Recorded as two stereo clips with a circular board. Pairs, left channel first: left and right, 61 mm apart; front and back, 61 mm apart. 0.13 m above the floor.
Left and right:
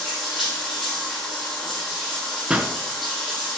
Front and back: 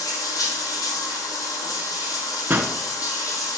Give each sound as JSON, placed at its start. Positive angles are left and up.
{"t": 0.0, "sound": "running water", "azimuth_deg": 0, "distance_m": 3.5}
{"t": 2.5, "sound": "a pop", "azimuth_deg": -150, "distance_m": 1.2}